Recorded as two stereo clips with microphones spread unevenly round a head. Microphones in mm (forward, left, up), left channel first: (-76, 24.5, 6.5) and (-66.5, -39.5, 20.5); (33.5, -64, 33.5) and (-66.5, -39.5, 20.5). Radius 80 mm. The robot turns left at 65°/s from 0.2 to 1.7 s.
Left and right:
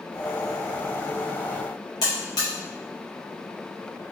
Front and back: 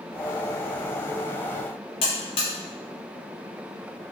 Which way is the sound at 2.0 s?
45° left.